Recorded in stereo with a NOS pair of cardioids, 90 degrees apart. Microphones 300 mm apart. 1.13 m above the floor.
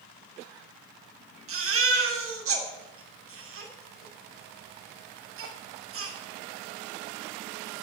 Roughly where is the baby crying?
Ahead right.